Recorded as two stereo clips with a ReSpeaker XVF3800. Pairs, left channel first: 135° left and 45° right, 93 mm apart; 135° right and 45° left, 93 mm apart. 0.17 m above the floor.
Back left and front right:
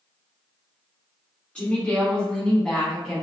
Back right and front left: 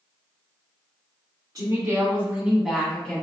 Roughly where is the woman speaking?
Ahead left.